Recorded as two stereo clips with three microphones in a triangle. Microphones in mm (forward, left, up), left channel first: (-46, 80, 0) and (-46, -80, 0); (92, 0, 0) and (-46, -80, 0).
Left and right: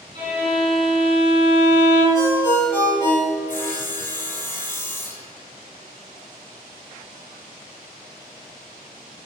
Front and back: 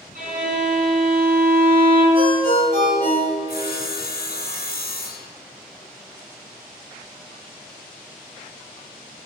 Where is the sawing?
15° left, 1.7 m.